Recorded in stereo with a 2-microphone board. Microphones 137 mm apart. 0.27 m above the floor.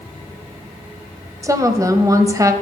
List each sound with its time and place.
1.4 s a woman speaking: 25° right (ahead or behind), 1.1 m